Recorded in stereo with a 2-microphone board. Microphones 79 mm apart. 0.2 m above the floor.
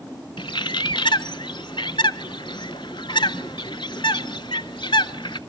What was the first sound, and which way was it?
A bird, 80° left.